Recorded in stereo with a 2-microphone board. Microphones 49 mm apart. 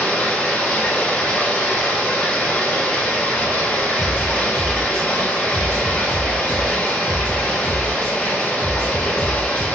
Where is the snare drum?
15° left (ahead or behind), 1.9 m.